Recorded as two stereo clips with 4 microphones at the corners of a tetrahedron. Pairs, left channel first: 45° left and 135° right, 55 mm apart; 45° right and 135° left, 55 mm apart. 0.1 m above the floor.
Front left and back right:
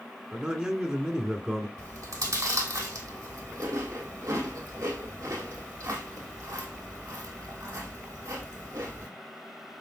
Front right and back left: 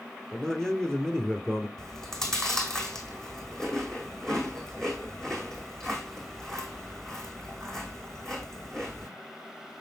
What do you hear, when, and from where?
0.3 s a man speaking: 110° right, 1.6 m
1.8 s chewing: 125° right, 2.5 m